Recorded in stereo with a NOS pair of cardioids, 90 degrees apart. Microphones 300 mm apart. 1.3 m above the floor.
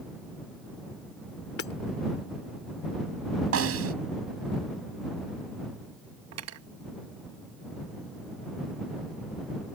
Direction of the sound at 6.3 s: 60° right.